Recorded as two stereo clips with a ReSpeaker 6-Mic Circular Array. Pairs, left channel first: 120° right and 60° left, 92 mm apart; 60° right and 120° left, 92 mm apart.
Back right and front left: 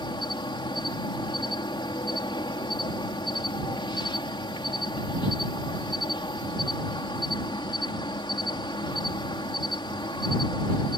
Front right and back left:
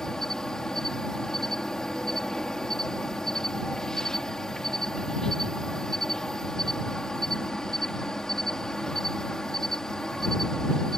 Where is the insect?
145° right.